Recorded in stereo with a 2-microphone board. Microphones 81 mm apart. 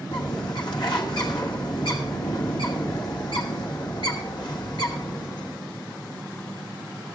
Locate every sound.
0.1 s a bird: 65° left (ahead or behind), 2.5 m